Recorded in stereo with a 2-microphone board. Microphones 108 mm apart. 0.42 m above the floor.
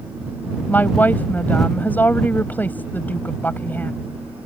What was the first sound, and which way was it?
A woman speaking, 20° left (ahead or behind).